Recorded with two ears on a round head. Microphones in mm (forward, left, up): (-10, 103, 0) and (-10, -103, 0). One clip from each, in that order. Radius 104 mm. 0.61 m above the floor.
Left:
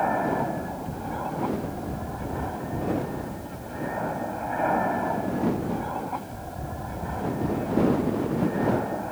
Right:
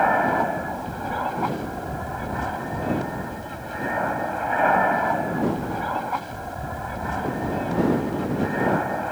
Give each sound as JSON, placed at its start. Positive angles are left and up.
{"t": 0.0, "sound": "an aircraft", "side_deg": -55}